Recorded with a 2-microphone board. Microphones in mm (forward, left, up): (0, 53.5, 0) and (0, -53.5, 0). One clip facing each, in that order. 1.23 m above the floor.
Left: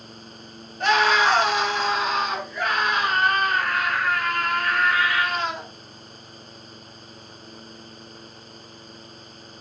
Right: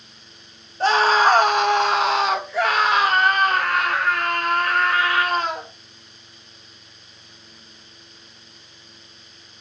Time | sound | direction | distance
0.8 | a scream | 30° right (ahead or behind) | 2.5 m